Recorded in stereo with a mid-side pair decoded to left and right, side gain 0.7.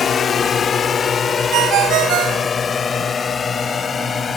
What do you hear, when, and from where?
0.0 s a drone: 35° left; by 4.4 s 30° left
1.5 s a ringtone: 55° right